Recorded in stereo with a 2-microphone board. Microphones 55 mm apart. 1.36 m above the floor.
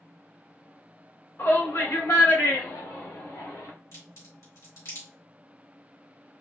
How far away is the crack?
About 2.5 m.